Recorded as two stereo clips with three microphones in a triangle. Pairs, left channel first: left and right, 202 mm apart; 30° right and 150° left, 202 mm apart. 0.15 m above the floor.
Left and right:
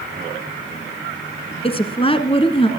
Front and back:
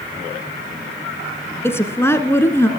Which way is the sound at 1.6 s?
40° left.